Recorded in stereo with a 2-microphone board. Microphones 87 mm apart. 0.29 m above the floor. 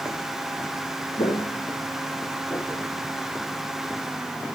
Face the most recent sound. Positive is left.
turn(degrees=30)  # may be behind; listen again after turning